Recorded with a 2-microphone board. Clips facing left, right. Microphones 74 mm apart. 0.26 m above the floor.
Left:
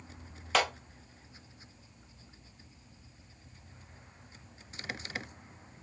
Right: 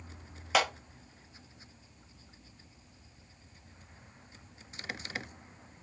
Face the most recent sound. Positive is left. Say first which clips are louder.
# right 1 dB
turn(degrees=-5)  # may be behind; listen again after turning